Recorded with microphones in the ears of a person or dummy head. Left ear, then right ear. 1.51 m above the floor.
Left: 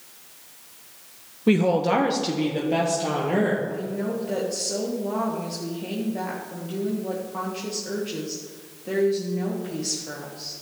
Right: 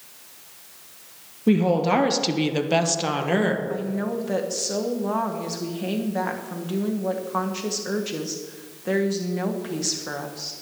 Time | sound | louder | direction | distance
1.5 | a woman speaking | even | 20° left (ahead or behind) | 0.7 m
3.7 | a woman speaking | right 1 dB | 40° right (ahead or behind) | 1.4 m